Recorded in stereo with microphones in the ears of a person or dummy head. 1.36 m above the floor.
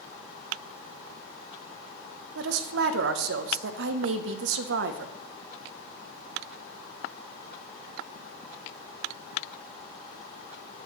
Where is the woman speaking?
75° right (ahead or behind), 0.7 m.